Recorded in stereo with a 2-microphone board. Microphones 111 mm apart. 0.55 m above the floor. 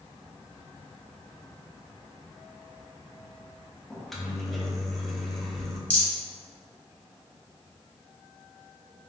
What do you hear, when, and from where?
3.9 s a microwave: centre (ahead or behind), 0.6 m
5.9 s a rattle: 10° left (ahead or behind), 1.7 m